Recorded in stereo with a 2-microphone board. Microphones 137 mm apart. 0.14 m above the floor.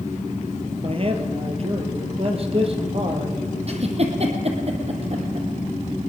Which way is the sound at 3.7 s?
50° right (ahead or behind).